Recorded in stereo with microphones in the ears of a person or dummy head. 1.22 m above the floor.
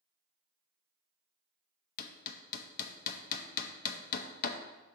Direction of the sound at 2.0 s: 45° left (ahead or behind).